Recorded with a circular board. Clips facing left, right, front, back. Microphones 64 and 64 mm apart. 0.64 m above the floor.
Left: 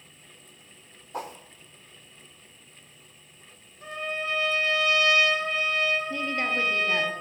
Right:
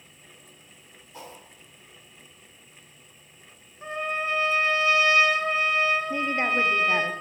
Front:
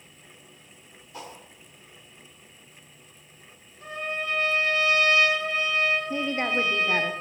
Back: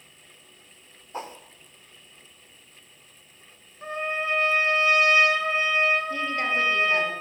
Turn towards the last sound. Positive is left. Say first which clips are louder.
# right 3 dB, even
turn(degrees=-40)